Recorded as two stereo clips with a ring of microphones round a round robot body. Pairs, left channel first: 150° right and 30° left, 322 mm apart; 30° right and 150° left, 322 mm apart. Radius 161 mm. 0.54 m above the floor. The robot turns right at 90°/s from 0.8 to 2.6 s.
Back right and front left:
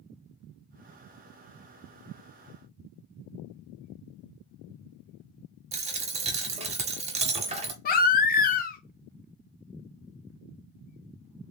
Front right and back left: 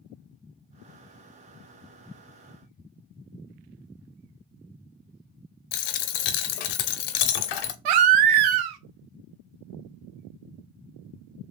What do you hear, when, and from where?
5.7 s a dropped coin: 40° right, 0.6 m
7.8 s a baby crying: 145° left, 0.6 m